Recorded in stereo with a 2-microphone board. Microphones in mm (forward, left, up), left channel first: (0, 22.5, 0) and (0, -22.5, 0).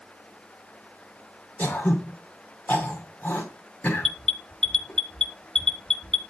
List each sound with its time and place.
1.6 s throat clearing: 35° left (ahead or behind), 2 m
4.0 s an alarm: 10° left (ahead or behind), 1.4 m